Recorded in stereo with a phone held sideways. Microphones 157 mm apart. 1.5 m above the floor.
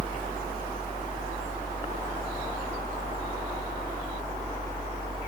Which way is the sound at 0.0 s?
60° left (ahead or behind).